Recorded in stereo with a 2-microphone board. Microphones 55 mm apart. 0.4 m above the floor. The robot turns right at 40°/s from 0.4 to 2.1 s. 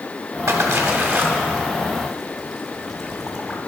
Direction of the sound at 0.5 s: 65° right (ahead or behind).